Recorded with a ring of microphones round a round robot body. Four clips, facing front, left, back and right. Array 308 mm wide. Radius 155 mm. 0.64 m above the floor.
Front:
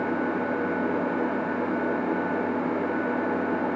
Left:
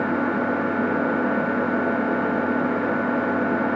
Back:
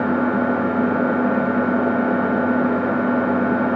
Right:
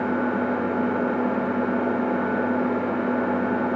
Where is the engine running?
175° left, 1.6 m.